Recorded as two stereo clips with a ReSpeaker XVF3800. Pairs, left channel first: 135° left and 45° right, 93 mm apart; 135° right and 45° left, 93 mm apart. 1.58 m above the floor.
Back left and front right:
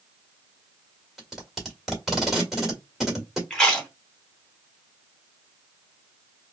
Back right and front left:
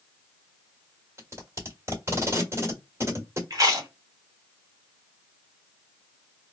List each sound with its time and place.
1.2 s tape being pulled: 40° left, 1.4 m
3.5 s chewing: 60° left, 1.1 m